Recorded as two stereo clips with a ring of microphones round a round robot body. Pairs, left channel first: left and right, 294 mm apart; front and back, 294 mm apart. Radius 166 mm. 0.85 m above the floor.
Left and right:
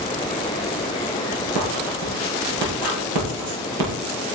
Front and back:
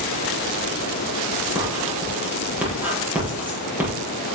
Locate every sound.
1.6 s writing: 95° right, 7 m